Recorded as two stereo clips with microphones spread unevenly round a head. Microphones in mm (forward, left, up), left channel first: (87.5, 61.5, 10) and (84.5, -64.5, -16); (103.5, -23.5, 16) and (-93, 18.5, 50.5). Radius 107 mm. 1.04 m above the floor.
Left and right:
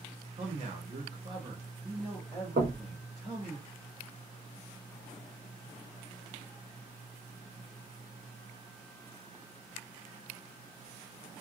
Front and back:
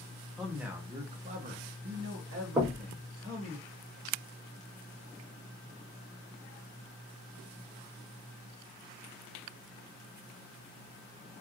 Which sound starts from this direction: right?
A man speaking, at 0.4 s.